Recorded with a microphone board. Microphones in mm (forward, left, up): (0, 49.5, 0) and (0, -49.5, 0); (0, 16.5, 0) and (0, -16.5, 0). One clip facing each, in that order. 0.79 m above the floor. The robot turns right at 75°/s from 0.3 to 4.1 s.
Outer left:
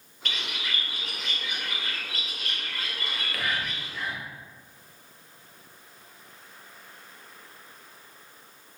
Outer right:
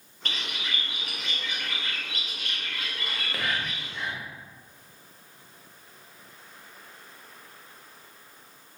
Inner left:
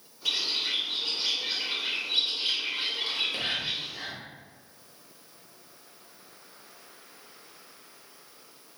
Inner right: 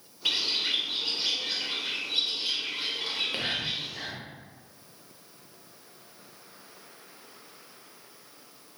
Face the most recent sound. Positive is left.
turn(degrees=-5)  # may be behind; listen again after turning